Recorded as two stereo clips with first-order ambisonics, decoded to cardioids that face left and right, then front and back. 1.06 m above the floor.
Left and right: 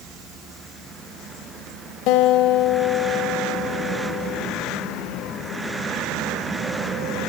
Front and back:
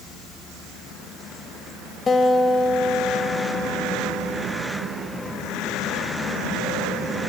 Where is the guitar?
70° left, 1.8 m.